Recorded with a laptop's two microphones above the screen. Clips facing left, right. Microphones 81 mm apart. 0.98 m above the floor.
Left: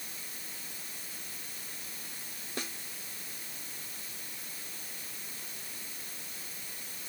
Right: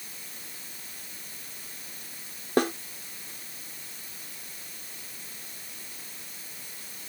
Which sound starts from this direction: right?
A snare drum, at 2.6 s.